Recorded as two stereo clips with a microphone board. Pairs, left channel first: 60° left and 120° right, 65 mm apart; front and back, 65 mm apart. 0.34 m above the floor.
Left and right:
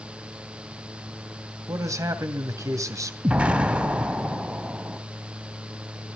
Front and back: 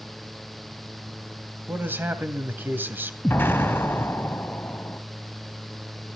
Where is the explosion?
55° right, 3 m.